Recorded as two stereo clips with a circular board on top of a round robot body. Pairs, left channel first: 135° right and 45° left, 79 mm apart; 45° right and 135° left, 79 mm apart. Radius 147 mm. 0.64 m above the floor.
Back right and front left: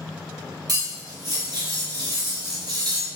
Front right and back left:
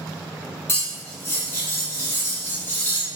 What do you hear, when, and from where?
0.7 s cutlery clinking: 15° left, 1.4 m